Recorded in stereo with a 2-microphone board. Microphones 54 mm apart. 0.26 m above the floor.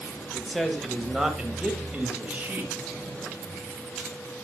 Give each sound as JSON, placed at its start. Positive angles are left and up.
{"t": 0.3, "sound": "a man speaking", "side_deg": 10, "distance_m": 1.3}